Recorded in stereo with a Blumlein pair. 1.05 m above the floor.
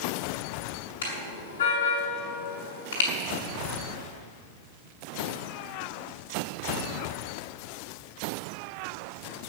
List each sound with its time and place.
1.0 s a car horn: 65° left, 6 m